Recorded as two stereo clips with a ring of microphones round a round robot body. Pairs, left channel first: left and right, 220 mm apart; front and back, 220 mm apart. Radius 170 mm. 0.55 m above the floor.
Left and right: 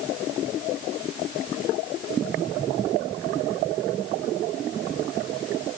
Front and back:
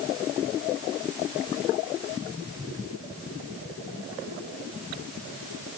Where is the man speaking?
No man speaking in this recording.